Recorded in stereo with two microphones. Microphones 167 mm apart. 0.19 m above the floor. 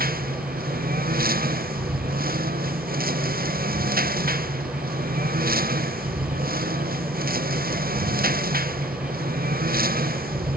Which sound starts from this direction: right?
A lawn mower, at 0.0 s.